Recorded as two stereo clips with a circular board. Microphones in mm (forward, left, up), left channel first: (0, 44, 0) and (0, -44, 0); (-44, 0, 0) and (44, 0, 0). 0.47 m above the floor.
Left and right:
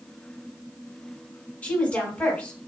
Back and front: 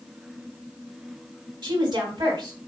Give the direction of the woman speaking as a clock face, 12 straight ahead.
11 o'clock.